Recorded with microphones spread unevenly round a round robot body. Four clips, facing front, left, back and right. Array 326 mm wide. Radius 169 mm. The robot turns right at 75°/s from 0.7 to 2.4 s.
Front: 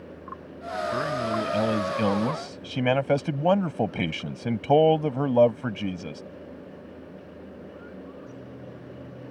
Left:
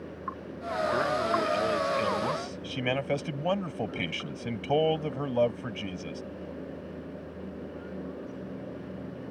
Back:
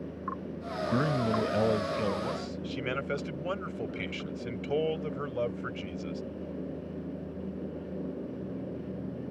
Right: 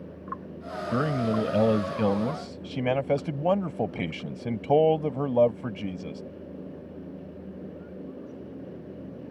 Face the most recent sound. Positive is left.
turn(degrees=-15)